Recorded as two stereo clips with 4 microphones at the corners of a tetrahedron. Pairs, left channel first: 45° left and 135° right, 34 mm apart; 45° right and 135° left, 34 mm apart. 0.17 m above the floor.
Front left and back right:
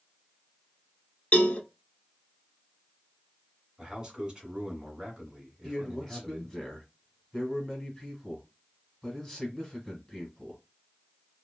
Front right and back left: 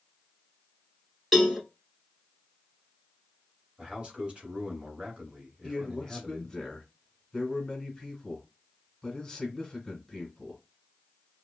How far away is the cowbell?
About 0.7 m.